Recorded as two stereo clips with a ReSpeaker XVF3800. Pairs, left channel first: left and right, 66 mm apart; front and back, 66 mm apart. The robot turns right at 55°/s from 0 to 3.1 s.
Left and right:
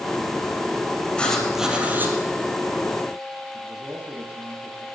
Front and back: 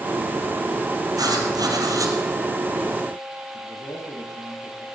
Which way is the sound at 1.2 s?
165° left.